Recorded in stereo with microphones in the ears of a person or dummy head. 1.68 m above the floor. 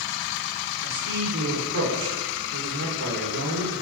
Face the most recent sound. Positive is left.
turn(degrees=-70)  # may be behind; listen again after turning